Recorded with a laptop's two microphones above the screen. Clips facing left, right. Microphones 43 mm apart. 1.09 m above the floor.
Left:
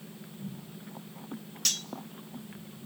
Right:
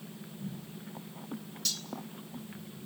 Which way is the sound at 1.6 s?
55° left (ahead or behind).